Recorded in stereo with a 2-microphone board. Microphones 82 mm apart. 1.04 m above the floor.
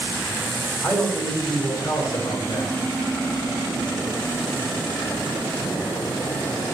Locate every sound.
0.8 s a man speaking: 25° left (ahead or behind), 3 m; by 2.7 s 50° left (ahead or behind), 3.5 m